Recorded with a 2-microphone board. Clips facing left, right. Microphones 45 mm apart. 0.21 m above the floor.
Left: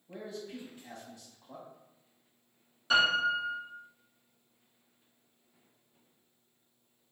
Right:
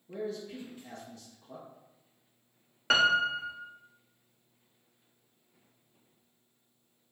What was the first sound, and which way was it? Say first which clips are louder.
A man speaking: right 5 dB; 15° left (ahead or behind).